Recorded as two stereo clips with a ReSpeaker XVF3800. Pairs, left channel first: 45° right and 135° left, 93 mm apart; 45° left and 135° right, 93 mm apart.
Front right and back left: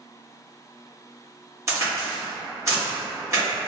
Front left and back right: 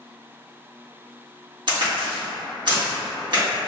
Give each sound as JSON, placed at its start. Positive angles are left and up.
{"t": 1.7, "sound": "a crack", "azimuth_deg": -165, "distance_m": 1.8}